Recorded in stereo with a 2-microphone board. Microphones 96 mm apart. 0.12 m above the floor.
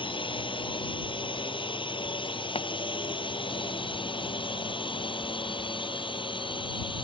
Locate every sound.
0.0 s a drone: 60° left (ahead or behind)
2.5 s a pop: 75° left (ahead or behind)